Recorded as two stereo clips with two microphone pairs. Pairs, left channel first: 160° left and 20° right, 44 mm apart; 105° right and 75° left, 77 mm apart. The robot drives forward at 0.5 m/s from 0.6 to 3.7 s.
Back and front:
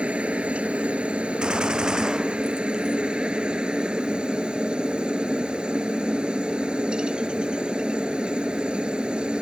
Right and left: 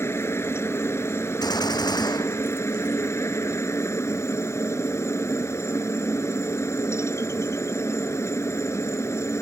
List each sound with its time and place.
0.0 s a helicopter: 70° right; by 9.4 s 75° right
1.4 s a gunshot: 90° right; by 3.0 s 95° right